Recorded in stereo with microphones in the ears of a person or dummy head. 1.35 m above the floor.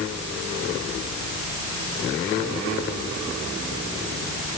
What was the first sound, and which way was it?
Only background noise.